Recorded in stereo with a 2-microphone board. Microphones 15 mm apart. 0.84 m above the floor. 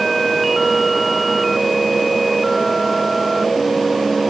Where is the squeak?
I don't hear a squeak.